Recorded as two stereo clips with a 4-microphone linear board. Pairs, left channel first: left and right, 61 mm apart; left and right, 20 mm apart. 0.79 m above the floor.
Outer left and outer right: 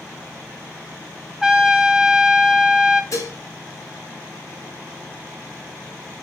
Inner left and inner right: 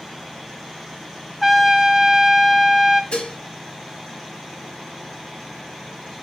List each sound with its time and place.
1.4 s a trumpet: 10° right (ahead or behind), 0.6 m
3.1 s dishes clattering: 55° left (ahead or behind), 1.4 m